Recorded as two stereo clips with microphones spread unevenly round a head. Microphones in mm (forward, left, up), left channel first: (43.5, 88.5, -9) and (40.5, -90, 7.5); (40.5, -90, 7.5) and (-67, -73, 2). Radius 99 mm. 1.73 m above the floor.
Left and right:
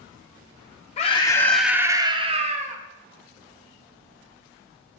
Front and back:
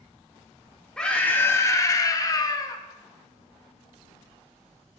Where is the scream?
65° left, 0.6 m; by 2.8 s 55° right, 1.0 m.